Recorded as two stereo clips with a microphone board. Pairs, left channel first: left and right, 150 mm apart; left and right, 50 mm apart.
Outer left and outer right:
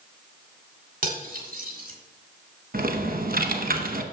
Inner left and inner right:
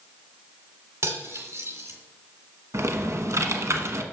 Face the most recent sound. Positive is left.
turn(degrees=-65)  # may be behind; listen again after turning